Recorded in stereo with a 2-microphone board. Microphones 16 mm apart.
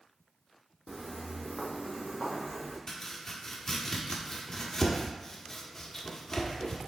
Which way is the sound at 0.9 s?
5° right (ahead or behind).